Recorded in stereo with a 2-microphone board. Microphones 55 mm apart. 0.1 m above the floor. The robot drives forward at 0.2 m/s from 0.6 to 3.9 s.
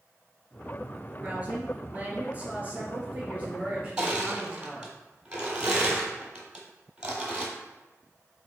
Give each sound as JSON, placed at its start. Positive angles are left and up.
{"t": 1.2, "sound": "a woman speaking", "side_deg": -25, "distance_m": 1.4}
{"t": 4.0, "sound": "crushing", "side_deg": -15, "distance_m": 1.0}